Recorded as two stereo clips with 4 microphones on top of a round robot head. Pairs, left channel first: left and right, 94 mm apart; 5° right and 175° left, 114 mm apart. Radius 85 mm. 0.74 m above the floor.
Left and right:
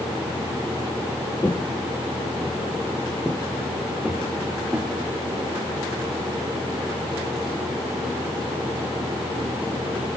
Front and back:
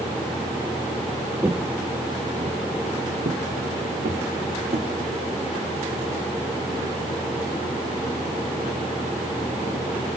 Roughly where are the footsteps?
Behind left.